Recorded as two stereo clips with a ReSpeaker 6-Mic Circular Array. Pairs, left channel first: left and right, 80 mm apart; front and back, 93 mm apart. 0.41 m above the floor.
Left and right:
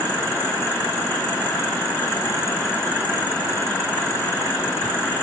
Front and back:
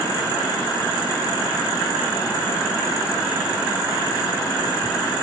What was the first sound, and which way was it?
Only background noise.